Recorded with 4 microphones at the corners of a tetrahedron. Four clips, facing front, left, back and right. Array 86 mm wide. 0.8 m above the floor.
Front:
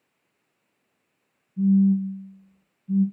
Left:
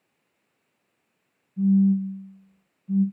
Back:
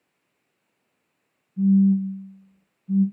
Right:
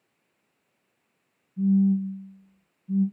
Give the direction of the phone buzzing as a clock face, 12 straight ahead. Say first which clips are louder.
Left 2 dB, back 1 dB; 8 o'clock.